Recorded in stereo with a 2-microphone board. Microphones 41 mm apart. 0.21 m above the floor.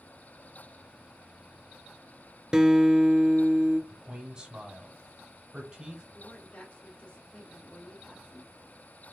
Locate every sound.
2.5 s a guitar: 20° right (ahead or behind), 0.6 m
3.9 s a man speaking: 20° right (ahead or behind), 1.5 m
6.1 s a woman speaking: 25° left (ahead or behind), 2.5 m